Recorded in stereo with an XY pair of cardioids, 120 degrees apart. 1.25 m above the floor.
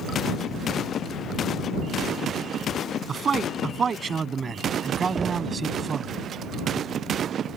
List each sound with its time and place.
3.1 s a man speaking: 35° right; by 6.1 s 30° right
5.2 s knocking: 30° right